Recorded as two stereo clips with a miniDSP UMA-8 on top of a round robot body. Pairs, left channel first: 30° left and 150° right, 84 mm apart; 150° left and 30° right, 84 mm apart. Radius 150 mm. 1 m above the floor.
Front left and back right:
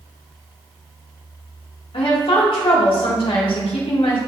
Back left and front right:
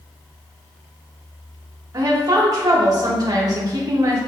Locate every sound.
1.9 s a woman speaking: 15° left, 2.5 m